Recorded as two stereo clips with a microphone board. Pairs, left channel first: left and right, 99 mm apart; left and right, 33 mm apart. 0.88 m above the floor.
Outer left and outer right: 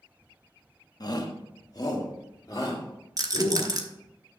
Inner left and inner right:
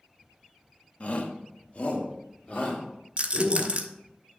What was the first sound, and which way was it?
A shout, 45° left (ahead or behind).